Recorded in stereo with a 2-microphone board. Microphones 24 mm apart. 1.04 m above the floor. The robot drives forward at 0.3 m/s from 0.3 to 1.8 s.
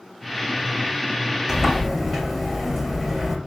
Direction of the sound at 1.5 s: 20° right (ahead or behind).